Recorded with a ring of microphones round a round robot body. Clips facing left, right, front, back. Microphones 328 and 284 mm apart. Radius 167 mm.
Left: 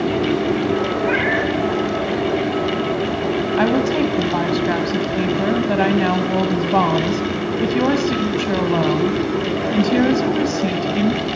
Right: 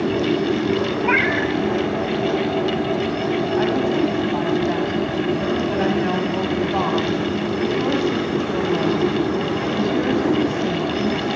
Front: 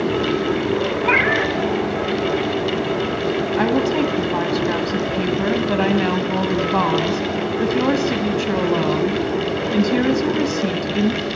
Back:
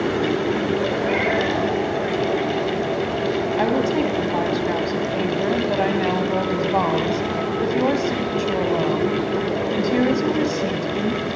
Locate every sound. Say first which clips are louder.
1.0 s a cat meowing: left 1 dB, front 1 dB; 25° right, 1.9 m
3.6 s a woman speaking: left 3 dB, front 3 dB; 70° left, 2.5 m